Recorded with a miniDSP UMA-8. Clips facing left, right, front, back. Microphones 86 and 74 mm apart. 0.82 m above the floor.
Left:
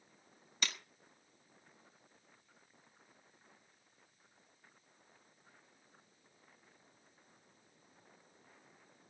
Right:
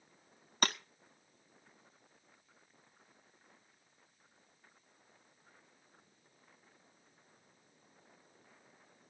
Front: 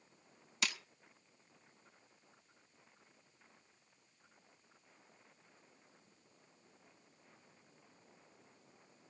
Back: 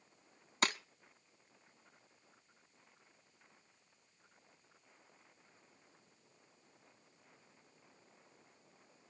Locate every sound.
0.6 s breaking glass: 130° right, 0.6 m